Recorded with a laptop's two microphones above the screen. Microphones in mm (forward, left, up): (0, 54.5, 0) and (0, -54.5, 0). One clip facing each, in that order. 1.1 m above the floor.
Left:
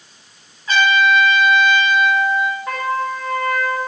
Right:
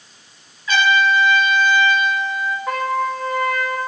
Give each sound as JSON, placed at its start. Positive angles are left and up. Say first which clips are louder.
{"t": 0.7, "sound": "a trumpet", "louder": "left 1 dB", "side_deg": 40, "distance_m": 4.0}
{"t": 2.7, "sound": "a trumpet", "louder": "right 1 dB", "side_deg": -5, "distance_m": 2.5}